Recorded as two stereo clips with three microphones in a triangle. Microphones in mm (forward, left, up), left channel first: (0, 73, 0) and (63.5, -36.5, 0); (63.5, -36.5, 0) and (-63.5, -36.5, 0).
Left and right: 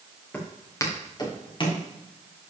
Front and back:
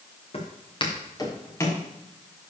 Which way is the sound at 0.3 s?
40° left.